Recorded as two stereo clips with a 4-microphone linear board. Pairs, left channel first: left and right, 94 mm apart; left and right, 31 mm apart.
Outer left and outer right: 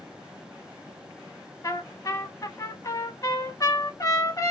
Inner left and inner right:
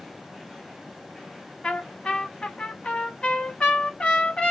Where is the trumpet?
35° left (ahead or behind), 0.8 m.